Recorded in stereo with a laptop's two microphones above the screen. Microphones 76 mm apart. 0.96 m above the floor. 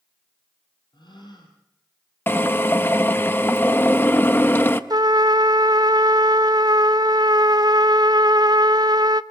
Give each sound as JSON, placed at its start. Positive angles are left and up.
{"t": 0.9, "sound": "a gasp", "side_deg": 75, "distance_m": 6.0}
{"t": 2.3, "sound": "a drill", "side_deg": 25, "distance_m": 0.7}
{"t": 4.9, "sound": "a trumpet", "side_deg": -60, "distance_m": 0.6}